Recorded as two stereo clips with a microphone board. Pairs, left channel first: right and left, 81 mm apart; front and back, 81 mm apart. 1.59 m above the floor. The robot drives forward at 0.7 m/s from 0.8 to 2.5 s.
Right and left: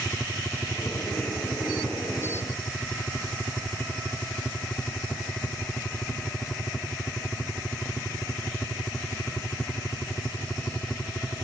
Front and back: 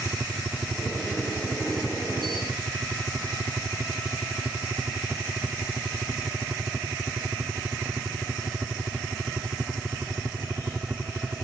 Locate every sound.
0.0 s a helicopter: 140° right; by 11.4 s 145° right